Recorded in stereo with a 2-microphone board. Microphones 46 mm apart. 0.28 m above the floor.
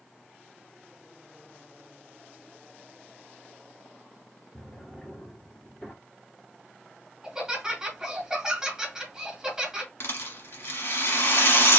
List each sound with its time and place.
4.5 s a drawer: 25° left (ahead or behind), 1.9 m
7.2 s laughter: 15° right (ahead or behind), 1.9 m
10.0 s a rattle: 65° left (ahead or behind), 1.4 m